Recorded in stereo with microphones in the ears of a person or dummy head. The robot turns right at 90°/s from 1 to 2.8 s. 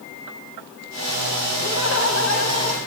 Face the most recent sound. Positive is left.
turn(degrees=155)